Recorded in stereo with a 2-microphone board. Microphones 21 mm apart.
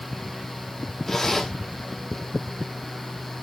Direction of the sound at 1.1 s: 20° left (ahead or behind).